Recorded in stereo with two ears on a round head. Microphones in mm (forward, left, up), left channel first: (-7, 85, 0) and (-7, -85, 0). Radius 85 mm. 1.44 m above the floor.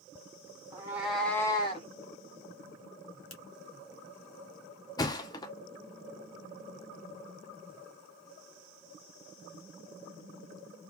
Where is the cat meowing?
15° right (ahead or behind), 1.7 m; by 1.9 s 35° left (ahead or behind), 1.4 m.